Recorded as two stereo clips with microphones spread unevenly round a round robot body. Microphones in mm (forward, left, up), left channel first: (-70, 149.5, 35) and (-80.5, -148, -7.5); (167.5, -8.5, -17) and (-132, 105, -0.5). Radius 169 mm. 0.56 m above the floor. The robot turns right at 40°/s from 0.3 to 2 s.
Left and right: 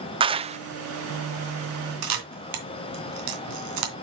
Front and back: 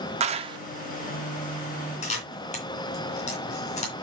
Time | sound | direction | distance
0.2 | a clap | 140° right | 0.5 m
2.0 | a camera shutter | 90° right | 3 m